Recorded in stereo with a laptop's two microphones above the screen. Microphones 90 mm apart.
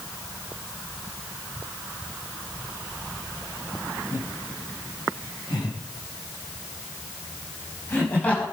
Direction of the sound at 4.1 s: 65° left (ahead or behind).